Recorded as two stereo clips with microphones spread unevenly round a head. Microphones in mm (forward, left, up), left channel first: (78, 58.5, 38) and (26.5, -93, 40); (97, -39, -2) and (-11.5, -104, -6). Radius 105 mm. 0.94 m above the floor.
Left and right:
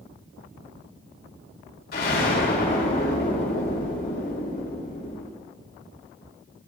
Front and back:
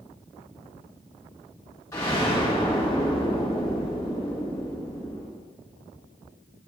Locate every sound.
1.9 s an explosion: 105° left, 2.5 m